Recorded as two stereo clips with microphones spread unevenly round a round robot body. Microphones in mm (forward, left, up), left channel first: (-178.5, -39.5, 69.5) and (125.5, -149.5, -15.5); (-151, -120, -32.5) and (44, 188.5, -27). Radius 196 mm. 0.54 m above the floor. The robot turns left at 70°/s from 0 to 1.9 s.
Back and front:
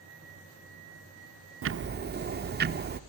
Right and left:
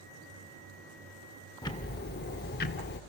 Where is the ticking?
40° right, 0.7 m; by 3.0 s 60° right, 0.7 m.